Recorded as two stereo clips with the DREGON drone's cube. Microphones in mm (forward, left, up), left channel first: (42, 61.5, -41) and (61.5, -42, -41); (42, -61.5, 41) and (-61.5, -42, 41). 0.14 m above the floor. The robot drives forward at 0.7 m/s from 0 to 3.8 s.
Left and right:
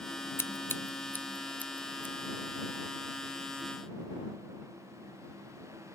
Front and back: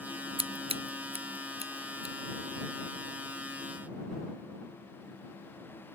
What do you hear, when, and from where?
0.4 s scissors: 160° left; by 2.1 s 175° left